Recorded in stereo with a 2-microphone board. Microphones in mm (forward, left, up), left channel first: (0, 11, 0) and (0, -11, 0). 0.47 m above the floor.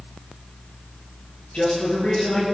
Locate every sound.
1.5 s a man speaking: 60° left (ahead or behind), 7 m